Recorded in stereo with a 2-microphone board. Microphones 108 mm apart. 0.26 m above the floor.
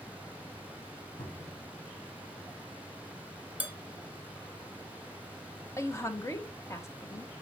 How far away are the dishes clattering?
About 1.8 m.